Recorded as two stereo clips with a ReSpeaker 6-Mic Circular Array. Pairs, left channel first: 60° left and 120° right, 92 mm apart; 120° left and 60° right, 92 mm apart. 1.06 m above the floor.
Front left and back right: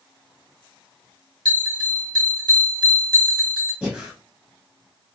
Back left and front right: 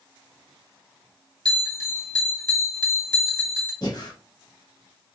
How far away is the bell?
About 1.4 m.